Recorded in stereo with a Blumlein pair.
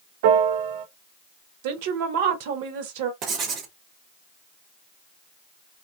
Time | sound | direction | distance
0.2 | a piano | 55° right | 0.6 m
1.6 | a woman speaking | 50° right | 1.0 m
3.2 | writing | 30° right | 0.9 m